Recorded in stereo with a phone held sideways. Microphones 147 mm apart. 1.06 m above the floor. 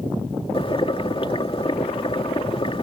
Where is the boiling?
40° left (ahead or behind).